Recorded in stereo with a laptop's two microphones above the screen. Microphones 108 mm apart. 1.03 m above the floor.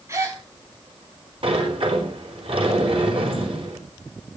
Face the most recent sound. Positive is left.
turn(degrees=-60)  # may be behind; listen again after turning